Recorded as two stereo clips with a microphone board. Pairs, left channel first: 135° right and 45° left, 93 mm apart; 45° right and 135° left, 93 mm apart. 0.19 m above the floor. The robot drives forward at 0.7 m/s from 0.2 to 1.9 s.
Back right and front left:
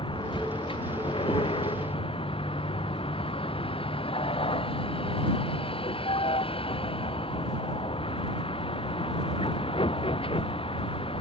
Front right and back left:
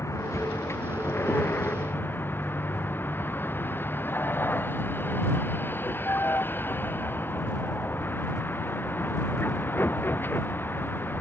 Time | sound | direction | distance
0.0 | a vehicle | 105° right | ?